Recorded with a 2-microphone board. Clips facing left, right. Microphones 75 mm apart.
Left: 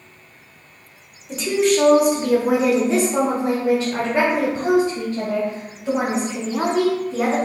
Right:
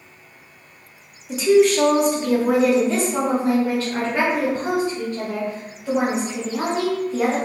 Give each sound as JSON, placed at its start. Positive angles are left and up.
{"t": 1.3, "sound": "a woman speaking", "side_deg": -5, "distance_m": 1.0}